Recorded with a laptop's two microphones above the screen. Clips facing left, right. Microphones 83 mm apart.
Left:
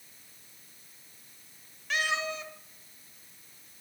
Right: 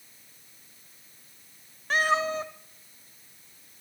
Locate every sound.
1.9 s a cat meowing: 40° right (ahead or behind), 0.8 m